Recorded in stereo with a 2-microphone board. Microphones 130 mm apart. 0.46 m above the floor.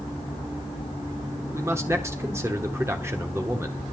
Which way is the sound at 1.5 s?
20° right (ahead or behind).